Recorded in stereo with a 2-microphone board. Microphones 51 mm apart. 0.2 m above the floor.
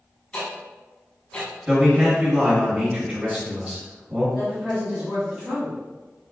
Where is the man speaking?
20° right (ahead or behind), 1.5 m.